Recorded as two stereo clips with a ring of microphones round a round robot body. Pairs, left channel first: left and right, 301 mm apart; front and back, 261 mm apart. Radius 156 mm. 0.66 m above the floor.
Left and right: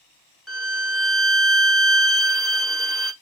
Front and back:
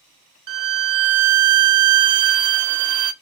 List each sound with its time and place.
0.5 s a violin: straight behind, 0.8 m